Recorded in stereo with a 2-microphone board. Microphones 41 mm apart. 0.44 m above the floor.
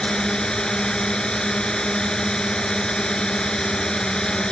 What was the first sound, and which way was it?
A drone, 20° left (ahead or behind).